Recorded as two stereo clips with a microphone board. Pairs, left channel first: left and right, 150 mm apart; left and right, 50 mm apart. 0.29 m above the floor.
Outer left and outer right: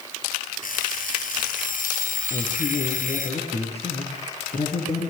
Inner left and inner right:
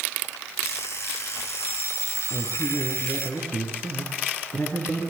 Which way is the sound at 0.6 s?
65° left (ahead or behind).